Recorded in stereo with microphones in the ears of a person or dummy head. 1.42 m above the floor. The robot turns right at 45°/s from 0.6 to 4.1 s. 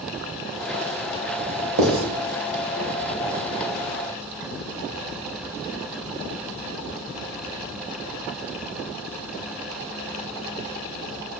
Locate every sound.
1.8 s writing: 55° right (ahead or behind), 2.0 m; by 2.0 s 60° right (ahead or behind), 2.0 m